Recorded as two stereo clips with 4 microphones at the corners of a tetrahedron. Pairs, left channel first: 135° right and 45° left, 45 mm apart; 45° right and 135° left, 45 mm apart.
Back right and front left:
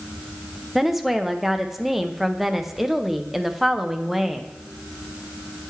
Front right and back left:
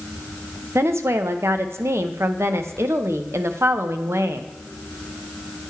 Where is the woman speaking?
130° left, 0.6 m.